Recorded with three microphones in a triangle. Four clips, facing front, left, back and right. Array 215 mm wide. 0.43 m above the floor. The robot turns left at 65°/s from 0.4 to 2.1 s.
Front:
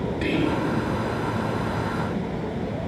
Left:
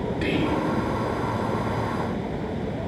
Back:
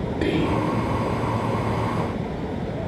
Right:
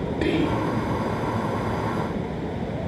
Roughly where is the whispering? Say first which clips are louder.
Right 2 dB, back 2 dB; behind right.